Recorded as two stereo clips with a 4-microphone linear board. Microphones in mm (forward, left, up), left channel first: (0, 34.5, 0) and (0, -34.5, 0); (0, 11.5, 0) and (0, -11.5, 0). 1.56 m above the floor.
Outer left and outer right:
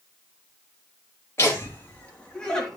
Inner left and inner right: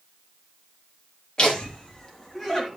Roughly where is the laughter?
Left.